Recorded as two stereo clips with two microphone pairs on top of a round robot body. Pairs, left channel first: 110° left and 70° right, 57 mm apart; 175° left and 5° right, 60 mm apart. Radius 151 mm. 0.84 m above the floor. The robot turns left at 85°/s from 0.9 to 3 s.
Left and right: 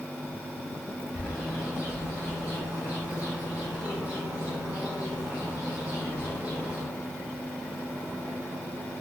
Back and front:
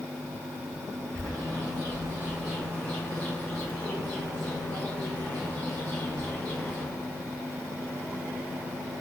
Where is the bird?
35° left, 0.8 m; by 6.8 s 125° right, 0.8 m.